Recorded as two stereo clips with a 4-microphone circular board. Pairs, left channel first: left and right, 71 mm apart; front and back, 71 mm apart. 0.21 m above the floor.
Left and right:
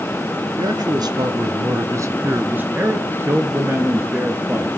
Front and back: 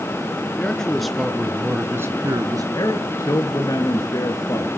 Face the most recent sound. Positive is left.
turn(degrees=-35)